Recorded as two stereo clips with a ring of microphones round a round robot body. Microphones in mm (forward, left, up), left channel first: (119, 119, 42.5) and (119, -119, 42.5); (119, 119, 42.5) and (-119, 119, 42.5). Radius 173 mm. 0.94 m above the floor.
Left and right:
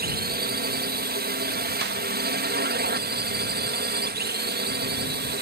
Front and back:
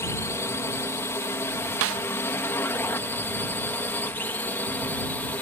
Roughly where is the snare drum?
Behind right.